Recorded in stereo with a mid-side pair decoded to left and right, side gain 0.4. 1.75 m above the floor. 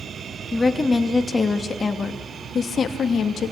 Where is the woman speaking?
25° left, 3 m; by 3.5 s 65° left, 2.5 m.